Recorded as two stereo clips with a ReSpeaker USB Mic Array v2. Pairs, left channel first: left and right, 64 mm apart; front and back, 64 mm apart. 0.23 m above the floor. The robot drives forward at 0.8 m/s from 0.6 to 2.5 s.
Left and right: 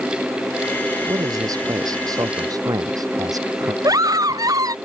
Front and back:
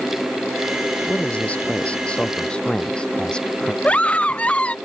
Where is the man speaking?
70° right; by 3.7 s 75° right.